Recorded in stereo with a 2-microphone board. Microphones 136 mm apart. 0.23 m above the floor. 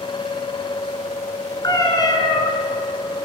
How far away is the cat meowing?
About 0.9 m.